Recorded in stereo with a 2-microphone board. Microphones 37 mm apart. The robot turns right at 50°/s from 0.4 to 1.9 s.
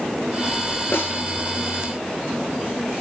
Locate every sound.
0.9 s a snare drum: 65° left (ahead or behind), 3.5 m; by 1.2 s 55° left (ahead or behind), 3.5 m